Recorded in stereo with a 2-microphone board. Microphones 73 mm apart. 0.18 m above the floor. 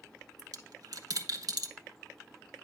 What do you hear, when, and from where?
0.4 s a dropped coin: 60° right (ahead or behind), 0.9 m